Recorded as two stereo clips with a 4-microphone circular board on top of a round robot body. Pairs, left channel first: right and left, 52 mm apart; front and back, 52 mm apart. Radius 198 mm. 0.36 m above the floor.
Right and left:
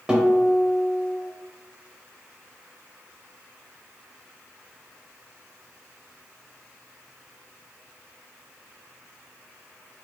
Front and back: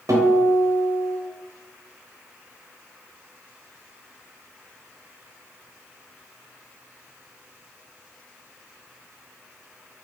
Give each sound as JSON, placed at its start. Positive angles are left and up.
{"t": 0.1, "sound": "a guitar", "azimuth_deg": 165, "distance_m": 0.7}